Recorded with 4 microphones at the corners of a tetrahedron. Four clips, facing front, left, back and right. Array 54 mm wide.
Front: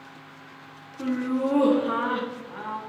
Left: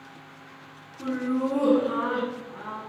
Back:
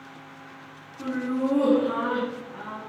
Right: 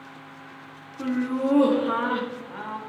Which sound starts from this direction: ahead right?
Laughter, at 1.0 s.